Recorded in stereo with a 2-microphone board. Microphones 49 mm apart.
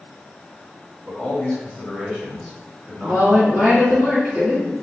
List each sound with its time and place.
1.1 s a man speaking: 30° left (ahead or behind), 1.5 m; by 4.0 s 25° right (ahead or behind), 1.5 m
3.0 s a woman speaking: 45° left (ahead or behind), 1.7 m